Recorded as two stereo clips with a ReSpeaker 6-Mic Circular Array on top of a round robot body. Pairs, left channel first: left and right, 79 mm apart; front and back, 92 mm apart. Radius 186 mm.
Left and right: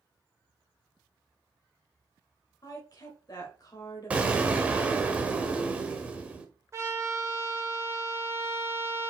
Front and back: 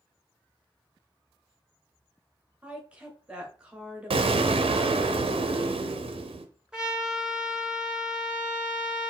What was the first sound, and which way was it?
A woman speaking, 105° left.